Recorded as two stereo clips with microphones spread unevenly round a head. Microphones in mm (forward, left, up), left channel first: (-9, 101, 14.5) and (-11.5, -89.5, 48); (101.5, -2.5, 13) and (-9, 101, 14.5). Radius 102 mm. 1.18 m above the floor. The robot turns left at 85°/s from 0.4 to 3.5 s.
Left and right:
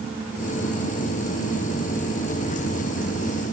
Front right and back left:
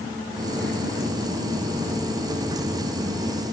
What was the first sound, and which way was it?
Only background noise.